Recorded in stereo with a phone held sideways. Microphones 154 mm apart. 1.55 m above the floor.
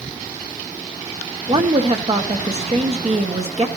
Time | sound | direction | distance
1.5 | a woman speaking | 45° right (ahead or behind) | 1.6 m